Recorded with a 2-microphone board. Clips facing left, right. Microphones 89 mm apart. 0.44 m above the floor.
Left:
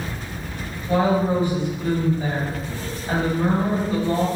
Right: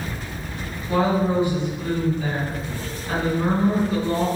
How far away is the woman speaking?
About 2.0 m.